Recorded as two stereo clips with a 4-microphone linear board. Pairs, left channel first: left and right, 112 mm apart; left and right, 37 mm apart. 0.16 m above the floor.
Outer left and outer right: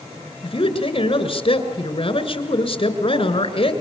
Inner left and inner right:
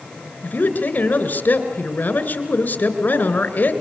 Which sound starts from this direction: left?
A man speaking, at 0.4 s.